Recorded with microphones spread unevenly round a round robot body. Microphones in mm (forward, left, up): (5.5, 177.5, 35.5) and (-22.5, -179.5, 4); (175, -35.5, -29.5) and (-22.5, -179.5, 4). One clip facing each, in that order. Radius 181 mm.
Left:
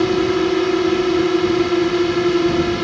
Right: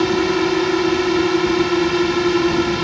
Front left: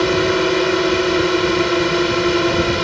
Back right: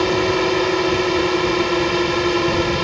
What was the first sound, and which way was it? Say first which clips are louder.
A drone: left 1 dB, front left 2 dB; 25° right.